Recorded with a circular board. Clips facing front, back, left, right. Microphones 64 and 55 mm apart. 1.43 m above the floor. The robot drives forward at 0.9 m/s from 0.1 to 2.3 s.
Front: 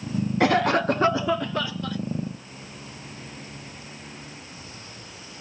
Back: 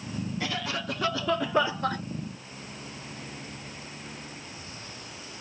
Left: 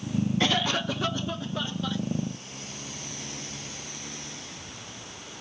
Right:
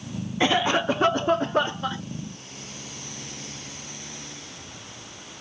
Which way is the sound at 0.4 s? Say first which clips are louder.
Front 15 dB, right 9 dB; 20° right.